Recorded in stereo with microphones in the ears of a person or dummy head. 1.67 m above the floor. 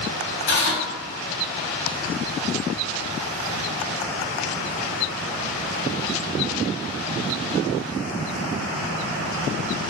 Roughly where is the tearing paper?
Left.